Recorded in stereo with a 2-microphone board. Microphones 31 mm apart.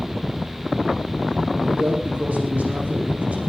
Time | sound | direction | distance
1.6 | a man speaking | 55° right (ahead or behind) | 6 m